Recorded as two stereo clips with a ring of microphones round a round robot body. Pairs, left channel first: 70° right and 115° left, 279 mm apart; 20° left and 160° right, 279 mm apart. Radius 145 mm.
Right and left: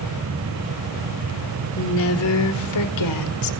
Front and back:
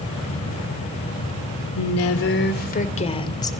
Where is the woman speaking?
15° right, 2.5 m; by 3.5 s 55° right, 3 m.